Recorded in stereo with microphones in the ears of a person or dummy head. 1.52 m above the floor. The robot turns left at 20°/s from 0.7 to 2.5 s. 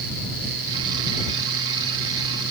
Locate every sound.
Only background noise.